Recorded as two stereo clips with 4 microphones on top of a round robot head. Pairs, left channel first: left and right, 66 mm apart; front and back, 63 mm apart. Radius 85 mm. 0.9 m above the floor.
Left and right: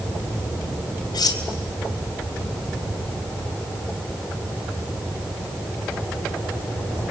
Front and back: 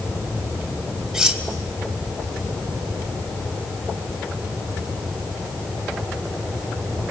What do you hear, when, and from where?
1.1 s cutlery clinking: 100° left, 3 m